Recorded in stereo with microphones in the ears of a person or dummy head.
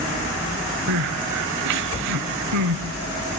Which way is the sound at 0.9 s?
75° right (ahead or behind).